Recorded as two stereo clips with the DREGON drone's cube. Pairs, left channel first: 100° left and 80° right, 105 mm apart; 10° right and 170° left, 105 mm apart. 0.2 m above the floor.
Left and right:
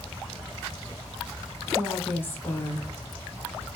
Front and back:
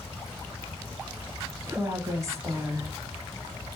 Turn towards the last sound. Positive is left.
turn(degrees=150)